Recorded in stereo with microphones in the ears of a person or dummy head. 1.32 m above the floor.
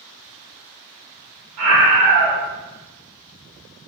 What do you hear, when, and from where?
1.6 s a scream: 75° right (ahead or behind), 1.2 m